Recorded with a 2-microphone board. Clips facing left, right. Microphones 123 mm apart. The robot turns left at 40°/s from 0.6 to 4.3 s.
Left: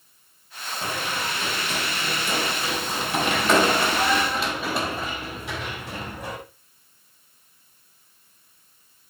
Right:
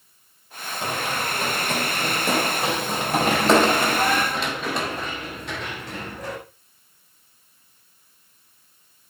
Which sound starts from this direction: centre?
Running footsteps, at 0.8 s.